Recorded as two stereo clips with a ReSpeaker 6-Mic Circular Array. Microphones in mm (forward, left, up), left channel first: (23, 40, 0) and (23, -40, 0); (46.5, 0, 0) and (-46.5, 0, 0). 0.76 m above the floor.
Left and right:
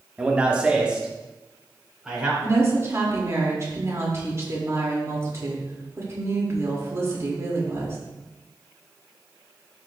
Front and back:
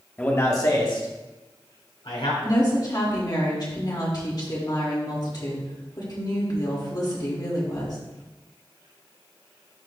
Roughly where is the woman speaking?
Ahead right.